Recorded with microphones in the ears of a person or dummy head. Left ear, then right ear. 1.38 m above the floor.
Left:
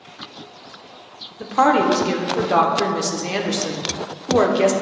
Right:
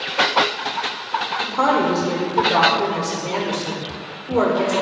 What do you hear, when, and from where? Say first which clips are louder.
1.4 s a woman speaking: left 4 dB; 70° left (ahead or behind), 1.0 m